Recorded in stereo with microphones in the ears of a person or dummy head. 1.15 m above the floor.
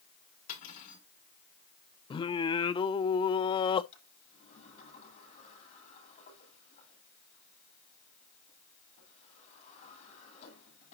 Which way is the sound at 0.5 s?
55° left (ahead or behind).